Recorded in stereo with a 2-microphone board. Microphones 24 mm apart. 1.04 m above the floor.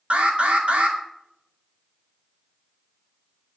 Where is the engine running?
No engine running in this recording.